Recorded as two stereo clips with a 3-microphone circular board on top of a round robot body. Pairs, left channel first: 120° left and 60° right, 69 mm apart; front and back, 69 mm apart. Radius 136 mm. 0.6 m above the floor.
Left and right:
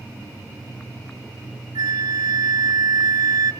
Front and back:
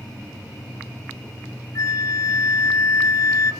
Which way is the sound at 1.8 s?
40° right.